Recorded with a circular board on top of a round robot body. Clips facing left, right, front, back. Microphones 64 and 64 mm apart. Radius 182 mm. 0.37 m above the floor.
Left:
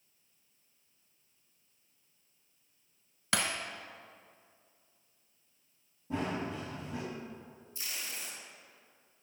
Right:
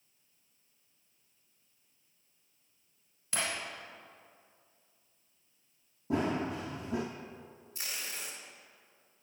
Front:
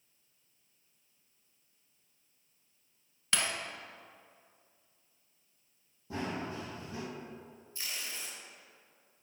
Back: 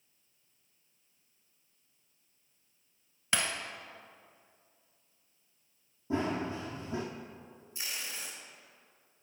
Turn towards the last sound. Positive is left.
turn(degrees=-110)